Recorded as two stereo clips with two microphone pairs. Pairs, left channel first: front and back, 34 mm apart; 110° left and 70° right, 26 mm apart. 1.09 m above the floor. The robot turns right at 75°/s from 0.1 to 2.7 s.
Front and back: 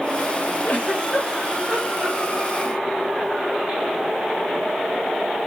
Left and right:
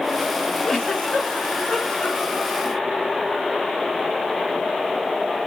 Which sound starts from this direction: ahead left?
A giggle, at 0.6 s.